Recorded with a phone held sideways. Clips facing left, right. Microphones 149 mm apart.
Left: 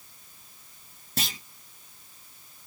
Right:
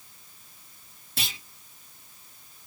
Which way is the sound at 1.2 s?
45° left (ahead or behind).